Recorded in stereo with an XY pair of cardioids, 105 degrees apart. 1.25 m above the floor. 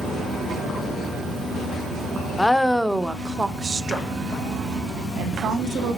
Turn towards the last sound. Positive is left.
turn(degrees=-70)